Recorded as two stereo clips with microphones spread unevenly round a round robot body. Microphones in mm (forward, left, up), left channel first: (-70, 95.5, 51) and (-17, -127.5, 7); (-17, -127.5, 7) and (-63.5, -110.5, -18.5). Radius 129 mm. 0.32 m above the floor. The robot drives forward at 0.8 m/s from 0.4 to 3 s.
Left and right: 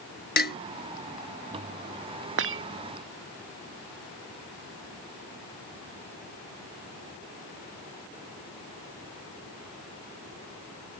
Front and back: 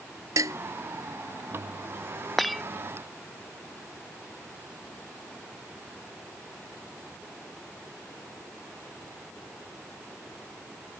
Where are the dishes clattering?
150° left.